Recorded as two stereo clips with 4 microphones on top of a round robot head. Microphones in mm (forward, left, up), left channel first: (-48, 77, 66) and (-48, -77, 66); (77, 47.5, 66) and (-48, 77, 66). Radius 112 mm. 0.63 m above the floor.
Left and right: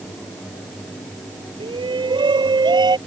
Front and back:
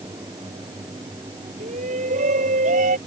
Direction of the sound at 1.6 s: 150° right.